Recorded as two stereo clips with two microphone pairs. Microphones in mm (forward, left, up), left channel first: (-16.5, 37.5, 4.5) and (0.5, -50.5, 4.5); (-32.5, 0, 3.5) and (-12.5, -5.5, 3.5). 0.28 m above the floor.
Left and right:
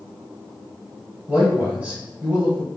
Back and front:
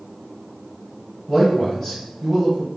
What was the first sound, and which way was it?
A man speaking, 135° right.